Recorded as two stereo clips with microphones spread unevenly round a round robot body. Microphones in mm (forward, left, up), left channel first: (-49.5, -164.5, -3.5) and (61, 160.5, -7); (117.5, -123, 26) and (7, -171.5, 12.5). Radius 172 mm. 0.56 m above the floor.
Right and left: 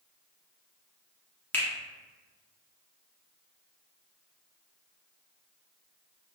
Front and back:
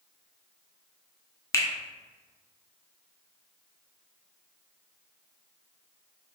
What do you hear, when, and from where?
1.5 s a finger snap: 30° right, 0.6 m